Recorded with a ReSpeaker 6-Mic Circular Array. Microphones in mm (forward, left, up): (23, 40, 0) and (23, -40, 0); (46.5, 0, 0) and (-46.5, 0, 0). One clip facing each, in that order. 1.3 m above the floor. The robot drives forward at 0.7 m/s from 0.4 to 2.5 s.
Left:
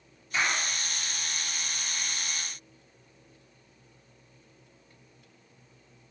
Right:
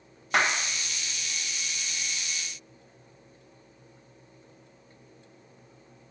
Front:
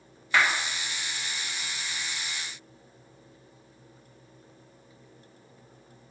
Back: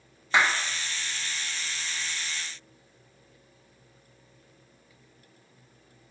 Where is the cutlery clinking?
No cutlery clinking in this recording.